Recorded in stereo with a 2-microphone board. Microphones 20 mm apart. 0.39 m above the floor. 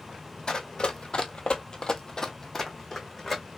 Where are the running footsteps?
45° left (ahead or behind), 0.8 m; by 3.4 s 10° left (ahead or behind), 1.3 m.